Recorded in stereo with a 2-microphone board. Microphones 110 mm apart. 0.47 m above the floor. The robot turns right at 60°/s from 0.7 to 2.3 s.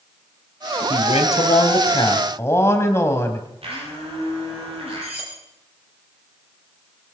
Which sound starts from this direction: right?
A blender, at 3.6 s.